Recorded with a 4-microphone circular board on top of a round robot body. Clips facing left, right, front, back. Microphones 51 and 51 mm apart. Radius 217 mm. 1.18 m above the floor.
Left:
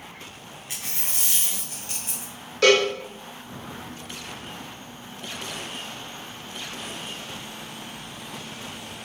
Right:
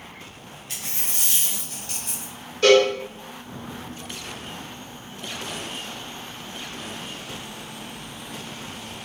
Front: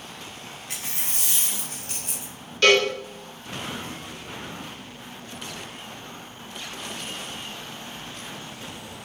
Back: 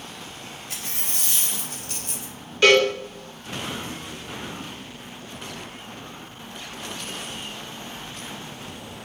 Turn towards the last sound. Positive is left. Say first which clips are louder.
# right 3 dB, back 2 dB
turn(degrees=100)